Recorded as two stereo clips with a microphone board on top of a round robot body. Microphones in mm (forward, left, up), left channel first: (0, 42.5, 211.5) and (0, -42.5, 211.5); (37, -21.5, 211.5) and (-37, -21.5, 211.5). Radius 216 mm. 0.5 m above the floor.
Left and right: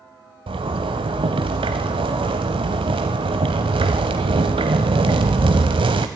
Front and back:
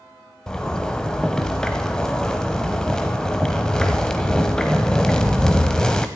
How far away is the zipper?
About 0.6 m.